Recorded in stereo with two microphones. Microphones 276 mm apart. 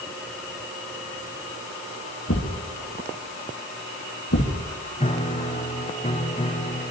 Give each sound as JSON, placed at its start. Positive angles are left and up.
{"t": 2.3, "sound": "a thud", "side_deg": 55, "distance_m": 3.5}
{"t": 5.0, "sound": "a piano", "side_deg": 20, "distance_m": 1.5}